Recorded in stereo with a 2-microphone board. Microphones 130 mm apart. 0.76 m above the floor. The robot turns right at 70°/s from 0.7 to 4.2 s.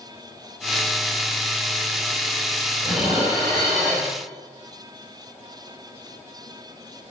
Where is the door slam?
No door slam in this recording.